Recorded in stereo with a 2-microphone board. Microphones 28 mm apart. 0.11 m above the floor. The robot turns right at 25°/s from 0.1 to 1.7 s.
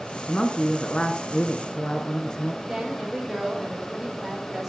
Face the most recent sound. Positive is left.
turn(degrees=-10)  # may be behind; listen again after turning